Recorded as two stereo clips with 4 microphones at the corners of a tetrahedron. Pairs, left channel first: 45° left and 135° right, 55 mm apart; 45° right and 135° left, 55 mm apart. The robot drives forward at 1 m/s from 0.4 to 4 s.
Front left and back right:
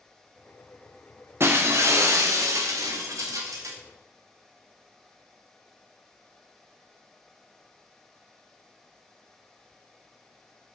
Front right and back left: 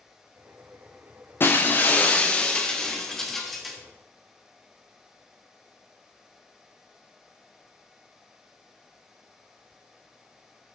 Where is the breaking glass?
95° right, 2.5 m; by 3.8 s 135° right, 3.5 m.